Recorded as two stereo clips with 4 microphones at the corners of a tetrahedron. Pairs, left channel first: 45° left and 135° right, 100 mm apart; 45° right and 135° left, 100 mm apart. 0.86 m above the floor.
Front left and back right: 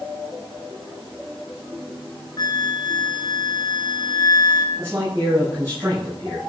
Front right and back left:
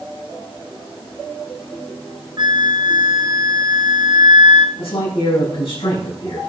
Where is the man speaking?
70° right, 6 m.